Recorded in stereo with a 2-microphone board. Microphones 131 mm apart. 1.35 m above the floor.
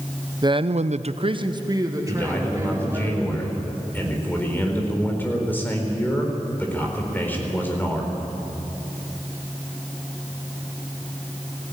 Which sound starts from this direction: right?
A man speaking, at 0.4 s.